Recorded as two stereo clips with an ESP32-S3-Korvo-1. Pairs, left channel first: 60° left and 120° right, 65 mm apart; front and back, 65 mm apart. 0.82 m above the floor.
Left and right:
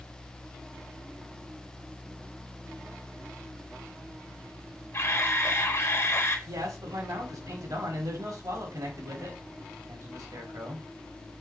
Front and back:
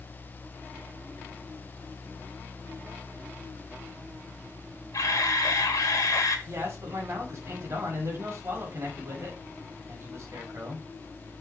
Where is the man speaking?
135° right, 4.5 m.